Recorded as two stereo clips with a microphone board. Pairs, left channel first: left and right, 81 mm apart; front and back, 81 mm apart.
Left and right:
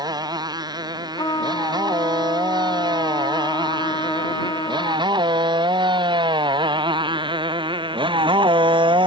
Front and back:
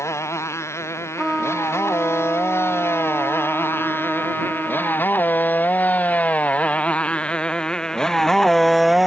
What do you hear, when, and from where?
0.0 s a motorcycle: 55° right; by 9.1 s 95° right
1.2 s a trumpet: 95° left